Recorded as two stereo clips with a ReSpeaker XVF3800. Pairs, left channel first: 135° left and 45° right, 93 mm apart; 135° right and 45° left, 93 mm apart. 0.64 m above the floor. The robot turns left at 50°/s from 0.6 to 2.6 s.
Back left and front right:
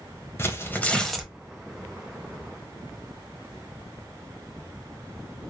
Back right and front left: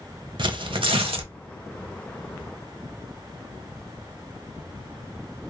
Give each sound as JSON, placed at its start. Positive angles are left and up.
{"t": 0.4, "sound": "tearing paper", "azimuth_deg": 75, "distance_m": 1.1}